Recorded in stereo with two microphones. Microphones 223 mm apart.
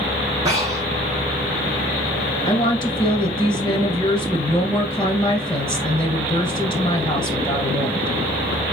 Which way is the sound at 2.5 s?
20° left (ahead or behind).